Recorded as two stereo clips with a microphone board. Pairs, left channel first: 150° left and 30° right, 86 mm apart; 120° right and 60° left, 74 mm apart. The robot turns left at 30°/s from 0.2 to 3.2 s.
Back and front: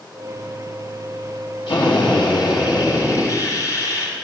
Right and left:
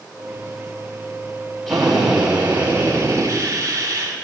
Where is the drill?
155° left, 8 m; by 4.1 s 110° left, 8 m.